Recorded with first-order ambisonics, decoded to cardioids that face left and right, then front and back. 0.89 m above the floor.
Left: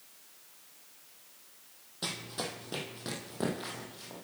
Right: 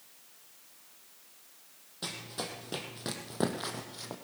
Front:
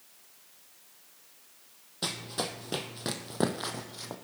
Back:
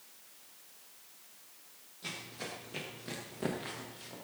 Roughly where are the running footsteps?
Ahead.